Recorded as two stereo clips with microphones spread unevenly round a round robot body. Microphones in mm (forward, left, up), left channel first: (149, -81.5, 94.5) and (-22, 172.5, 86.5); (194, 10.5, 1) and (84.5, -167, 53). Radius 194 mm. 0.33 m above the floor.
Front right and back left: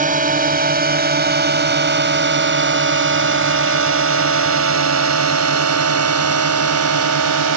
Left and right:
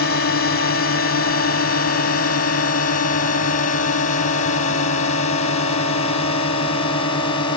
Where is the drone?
65° left; by 7.6 s 115° left.